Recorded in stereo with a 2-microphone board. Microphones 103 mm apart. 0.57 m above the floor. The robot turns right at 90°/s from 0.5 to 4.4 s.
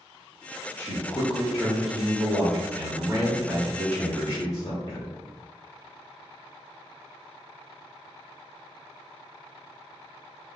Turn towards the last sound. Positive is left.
turn(degrees=70)